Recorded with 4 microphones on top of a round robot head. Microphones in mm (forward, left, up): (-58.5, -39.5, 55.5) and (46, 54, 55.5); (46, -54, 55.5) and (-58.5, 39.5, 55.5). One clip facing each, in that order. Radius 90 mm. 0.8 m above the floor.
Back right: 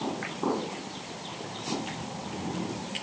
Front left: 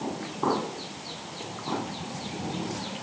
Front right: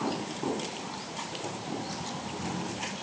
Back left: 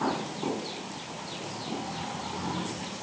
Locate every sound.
Only background noise.